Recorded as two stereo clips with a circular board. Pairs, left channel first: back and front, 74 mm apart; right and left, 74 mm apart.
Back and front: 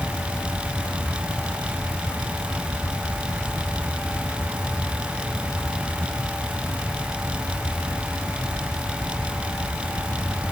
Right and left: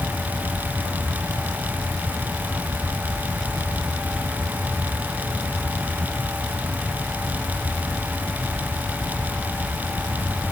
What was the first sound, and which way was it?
Only background noise.